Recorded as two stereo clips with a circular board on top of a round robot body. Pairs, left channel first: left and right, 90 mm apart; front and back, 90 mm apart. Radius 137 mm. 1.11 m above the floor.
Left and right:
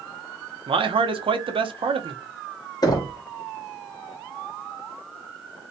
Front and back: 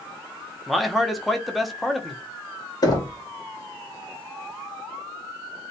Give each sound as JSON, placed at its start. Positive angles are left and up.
{"t": 0.7, "sound": "a man speaking", "azimuth_deg": -90, "distance_m": 0.6}
{"t": 2.8, "sound": "knocking", "azimuth_deg": 45, "distance_m": 0.8}